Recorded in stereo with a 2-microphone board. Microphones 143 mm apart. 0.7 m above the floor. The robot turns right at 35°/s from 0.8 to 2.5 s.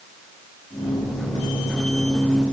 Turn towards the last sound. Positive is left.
No sound to turn to.